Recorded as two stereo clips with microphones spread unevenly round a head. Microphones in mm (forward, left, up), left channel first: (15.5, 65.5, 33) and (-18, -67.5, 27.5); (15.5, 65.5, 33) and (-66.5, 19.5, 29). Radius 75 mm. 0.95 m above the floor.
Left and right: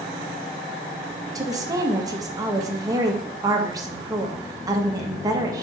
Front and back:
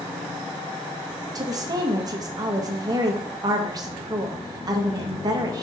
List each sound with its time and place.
1.4 s a woman speaking: 155° right, 0.8 m